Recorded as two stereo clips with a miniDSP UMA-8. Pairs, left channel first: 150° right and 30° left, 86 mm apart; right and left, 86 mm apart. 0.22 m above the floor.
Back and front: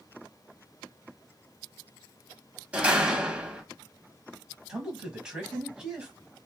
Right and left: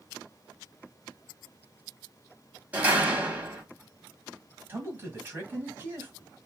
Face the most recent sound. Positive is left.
turn(degrees=100)